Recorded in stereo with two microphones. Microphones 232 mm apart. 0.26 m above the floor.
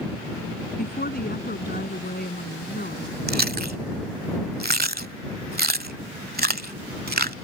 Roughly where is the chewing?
Right.